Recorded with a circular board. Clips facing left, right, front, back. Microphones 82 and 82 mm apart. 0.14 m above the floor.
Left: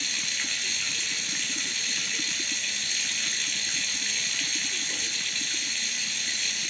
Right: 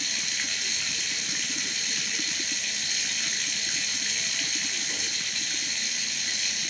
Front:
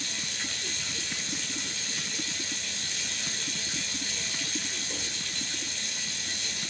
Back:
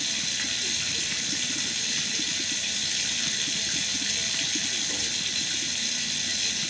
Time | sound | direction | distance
0.0 | running water | 175° right | 1.1 m